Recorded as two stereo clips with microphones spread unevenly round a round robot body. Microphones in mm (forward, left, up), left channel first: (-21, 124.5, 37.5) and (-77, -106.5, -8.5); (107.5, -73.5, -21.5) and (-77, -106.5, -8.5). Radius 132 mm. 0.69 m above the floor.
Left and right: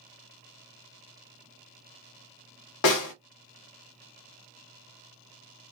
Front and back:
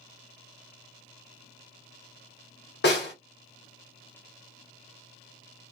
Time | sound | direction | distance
2.8 | a snare drum | 60° left | 1.1 m